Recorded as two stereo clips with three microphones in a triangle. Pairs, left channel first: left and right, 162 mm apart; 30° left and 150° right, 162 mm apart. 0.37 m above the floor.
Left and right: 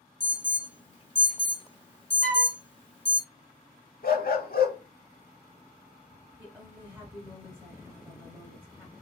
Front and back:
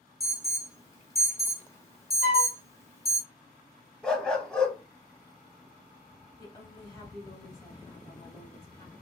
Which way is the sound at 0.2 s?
85° left.